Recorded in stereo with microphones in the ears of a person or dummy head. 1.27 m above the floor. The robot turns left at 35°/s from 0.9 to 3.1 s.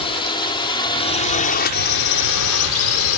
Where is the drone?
30° left (ahead or behind); by 3.2 s 75° left (ahead or behind).